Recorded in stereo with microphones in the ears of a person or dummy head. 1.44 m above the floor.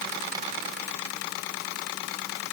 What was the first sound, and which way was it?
Only background noise.